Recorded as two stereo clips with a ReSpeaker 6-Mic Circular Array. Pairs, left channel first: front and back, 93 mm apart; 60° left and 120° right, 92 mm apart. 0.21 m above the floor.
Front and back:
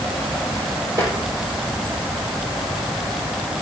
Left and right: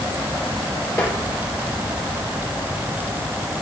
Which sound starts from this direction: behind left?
Tapping, at 1.0 s.